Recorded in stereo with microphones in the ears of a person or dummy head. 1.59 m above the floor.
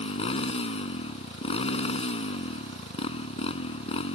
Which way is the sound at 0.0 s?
40° left (ahead or behind).